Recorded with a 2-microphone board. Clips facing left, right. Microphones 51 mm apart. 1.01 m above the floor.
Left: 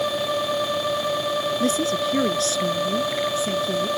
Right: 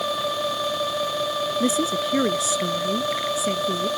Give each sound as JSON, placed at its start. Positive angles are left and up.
{"t": 1.6, "sound": "a woman speaking", "side_deg": -15}